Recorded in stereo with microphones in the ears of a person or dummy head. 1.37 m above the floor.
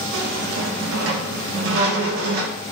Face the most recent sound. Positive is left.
turn(degrees=-80)